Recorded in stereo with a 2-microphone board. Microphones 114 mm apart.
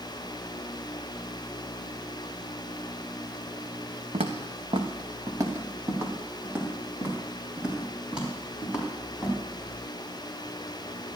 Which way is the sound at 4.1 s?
65° right (ahead or behind).